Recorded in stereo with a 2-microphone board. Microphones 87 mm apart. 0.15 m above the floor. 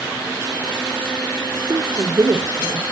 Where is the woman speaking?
45° right (ahead or behind), 2.5 m.